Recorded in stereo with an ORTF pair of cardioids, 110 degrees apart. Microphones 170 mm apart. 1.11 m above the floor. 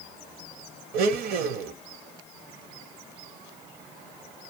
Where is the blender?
65° right, 0.7 m.